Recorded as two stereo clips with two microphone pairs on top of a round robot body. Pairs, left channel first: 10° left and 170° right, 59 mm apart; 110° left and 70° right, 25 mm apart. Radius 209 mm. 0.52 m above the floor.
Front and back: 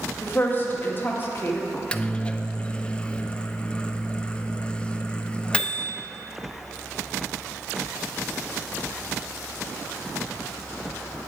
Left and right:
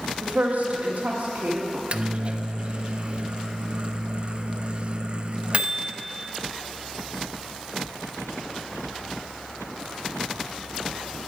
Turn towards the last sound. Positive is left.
turn(degrees=-45)